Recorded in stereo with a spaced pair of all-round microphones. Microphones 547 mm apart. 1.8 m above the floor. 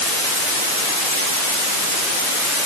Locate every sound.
Only background noise.